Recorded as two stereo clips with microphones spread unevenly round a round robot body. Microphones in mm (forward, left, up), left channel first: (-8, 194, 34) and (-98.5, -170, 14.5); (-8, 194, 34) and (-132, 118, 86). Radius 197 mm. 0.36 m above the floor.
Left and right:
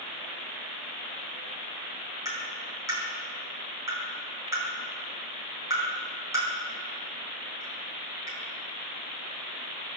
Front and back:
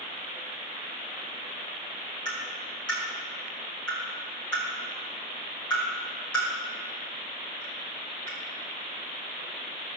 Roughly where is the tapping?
Ahead.